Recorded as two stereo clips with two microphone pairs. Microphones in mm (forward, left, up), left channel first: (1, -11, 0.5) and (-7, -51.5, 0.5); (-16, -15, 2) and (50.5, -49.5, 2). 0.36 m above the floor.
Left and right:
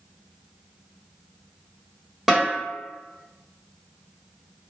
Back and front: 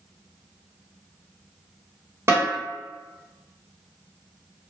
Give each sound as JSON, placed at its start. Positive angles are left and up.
{"t": 2.3, "sound": "a snare drum", "azimuth_deg": -25, "distance_m": 1.4}